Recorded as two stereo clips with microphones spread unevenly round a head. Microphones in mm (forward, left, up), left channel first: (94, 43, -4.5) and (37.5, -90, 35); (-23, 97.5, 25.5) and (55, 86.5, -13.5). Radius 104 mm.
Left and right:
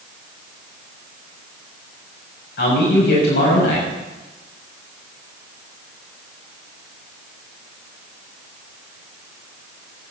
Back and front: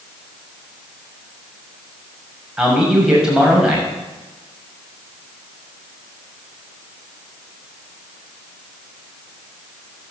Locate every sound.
2.6 s a man speaking: 75° left, 6.5 m